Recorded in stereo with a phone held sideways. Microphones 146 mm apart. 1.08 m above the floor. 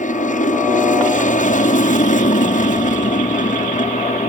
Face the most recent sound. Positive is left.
turn(degrees=60)  # may be behind; listen again after turning